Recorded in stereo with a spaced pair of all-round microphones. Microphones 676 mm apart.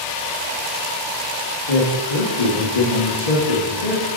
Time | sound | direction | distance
1.7 | a man speaking | 60° left (ahead or behind) | 1.1 m